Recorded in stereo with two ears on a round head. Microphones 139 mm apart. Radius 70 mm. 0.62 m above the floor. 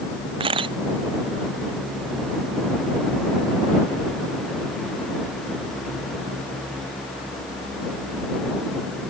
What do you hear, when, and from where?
0.4 s a camera shutter: 30° right (ahead or behind)